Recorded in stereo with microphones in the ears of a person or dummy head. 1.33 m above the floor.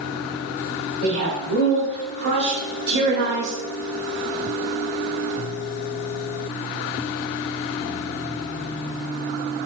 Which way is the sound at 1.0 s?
65° right (ahead or behind).